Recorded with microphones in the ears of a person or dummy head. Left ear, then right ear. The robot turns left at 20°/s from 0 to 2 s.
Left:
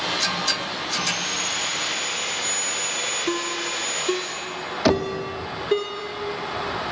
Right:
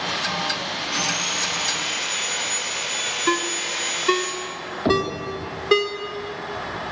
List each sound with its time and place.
0.9 s sawing: 20° right (ahead or behind), 5.5 m; by 4.3 s 5° left (ahead or behind), 5.5 m
3.3 s a ringtone: 25° right (ahead or behind), 1.1 m
4.8 s knocking: 75° left (ahead or behind), 2 m